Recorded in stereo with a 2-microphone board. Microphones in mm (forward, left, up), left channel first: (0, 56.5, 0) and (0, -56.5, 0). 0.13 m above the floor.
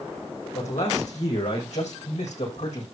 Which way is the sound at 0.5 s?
80° left.